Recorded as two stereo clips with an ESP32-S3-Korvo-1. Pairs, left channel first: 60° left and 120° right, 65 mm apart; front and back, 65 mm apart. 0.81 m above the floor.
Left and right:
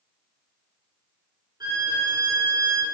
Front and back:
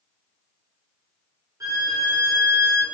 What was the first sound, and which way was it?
A violin, 145° right.